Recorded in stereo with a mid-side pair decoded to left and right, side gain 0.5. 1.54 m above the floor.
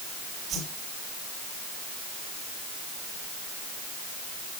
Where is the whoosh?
60° right, 7 m.